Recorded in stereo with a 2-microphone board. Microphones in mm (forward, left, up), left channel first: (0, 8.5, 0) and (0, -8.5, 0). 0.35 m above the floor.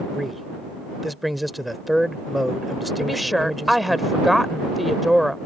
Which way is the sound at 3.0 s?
Centre (ahead or behind).